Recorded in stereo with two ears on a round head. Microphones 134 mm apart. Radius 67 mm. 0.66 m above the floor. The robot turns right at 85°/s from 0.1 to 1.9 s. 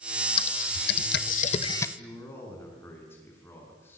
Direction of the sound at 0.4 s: 35° left (ahead or behind).